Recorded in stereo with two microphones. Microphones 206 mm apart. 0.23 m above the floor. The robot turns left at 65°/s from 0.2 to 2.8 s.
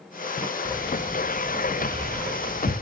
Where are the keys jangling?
35° left (ahead or behind), 1.7 m; by 2.7 s 55° right (ahead or behind), 1.7 m.